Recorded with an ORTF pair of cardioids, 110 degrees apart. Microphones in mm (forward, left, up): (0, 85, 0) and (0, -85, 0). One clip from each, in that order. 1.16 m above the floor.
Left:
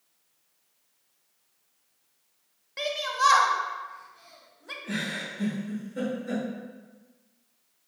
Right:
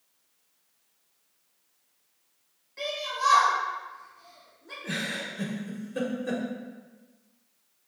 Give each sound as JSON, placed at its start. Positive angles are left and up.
{"t": 2.8, "sound": "a shout", "azimuth_deg": 55, "distance_m": 0.7}
{"t": 4.8, "sound": "a giggle", "azimuth_deg": -65, "distance_m": 0.8}